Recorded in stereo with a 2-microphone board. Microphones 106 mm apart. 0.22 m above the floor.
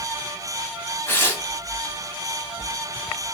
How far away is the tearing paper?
About 0.7 m.